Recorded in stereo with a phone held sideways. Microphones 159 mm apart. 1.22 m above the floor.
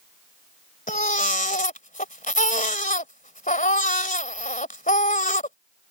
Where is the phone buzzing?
No phone buzzing in this recording.